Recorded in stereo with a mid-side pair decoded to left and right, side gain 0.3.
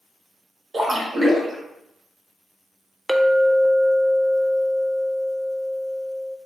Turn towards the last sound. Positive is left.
turn(degrees=-15)